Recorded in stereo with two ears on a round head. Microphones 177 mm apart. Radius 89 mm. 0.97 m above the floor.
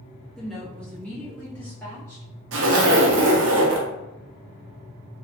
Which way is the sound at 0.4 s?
Centre (ahead or behind).